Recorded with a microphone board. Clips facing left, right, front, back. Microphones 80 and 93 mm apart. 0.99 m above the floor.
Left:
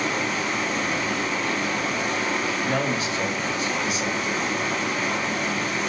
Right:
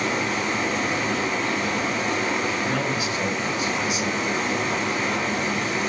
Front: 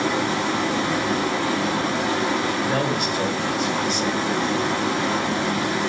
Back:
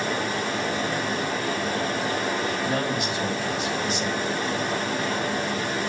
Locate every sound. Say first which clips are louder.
0.0 s running water: right 1 dB, front 4 dB; 5° left, 1.8 m
2.6 s a man speaking: even, front 3 dB; 35° left, 4.5 m